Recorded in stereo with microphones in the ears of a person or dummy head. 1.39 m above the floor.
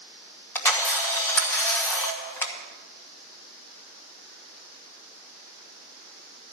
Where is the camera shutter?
Centre (ahead or behind), 1.3 m.